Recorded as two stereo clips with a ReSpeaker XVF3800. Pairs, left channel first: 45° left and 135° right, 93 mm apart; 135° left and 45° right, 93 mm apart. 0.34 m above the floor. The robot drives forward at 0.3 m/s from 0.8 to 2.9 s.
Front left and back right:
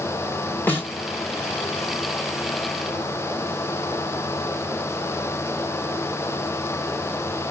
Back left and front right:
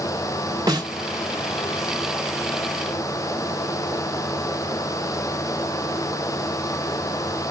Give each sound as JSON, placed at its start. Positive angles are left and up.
{"t": 0.7, "sound": "a snare drum", "azimuth_deg": -15, "distance_m": 1.2}